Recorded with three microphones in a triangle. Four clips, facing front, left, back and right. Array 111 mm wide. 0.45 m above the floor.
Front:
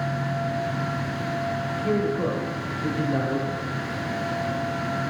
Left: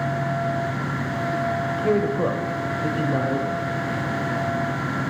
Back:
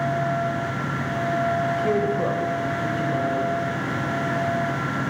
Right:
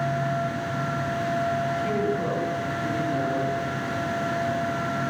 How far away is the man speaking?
About 1.4 m.